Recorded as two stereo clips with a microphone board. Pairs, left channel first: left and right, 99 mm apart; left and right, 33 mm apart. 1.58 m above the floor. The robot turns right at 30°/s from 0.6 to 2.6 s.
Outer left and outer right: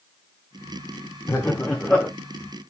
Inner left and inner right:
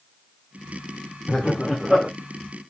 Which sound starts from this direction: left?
Laughter, at 1.3 s.